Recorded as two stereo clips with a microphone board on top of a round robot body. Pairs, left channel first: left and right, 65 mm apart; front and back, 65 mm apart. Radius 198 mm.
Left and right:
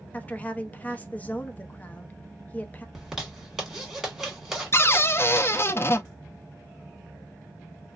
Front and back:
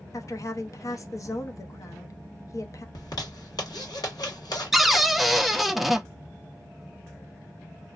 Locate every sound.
0.1 s a woman speaking: 25° left, 0.9 m
3.0 s a zipper: 5° right, 2.0 m
4.7 s a cupboard door: 90° left, 0.6 m